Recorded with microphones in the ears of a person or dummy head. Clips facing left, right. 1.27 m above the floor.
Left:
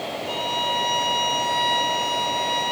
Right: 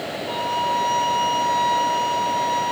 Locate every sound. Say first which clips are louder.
0.3 s a violin: right 5 dB; 20° left (ahead or behind), 1.0 m